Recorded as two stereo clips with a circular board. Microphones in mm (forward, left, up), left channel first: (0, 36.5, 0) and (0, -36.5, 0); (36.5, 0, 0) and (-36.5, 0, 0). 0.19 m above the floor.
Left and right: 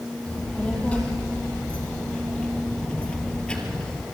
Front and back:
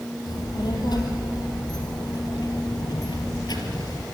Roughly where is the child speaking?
Ahead.